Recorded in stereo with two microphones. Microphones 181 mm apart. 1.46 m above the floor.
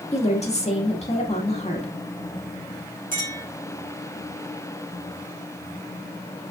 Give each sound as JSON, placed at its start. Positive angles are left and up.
{"t": 0.1, "sound": "a woman speaking", "side_deg": 35, "distance_m": 1.9}
{"t": 3.1, "sound": "a clink", "side_deg": -50, "distance_m": 4.0}